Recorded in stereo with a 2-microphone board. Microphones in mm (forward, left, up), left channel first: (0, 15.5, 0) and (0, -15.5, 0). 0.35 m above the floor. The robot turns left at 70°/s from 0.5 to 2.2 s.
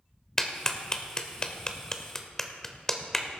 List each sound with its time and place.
0.4 s a clap: 10° left (ahead or behind), 0.9 m; by 3.3 s 15° left (ahead or behind), 0.9 m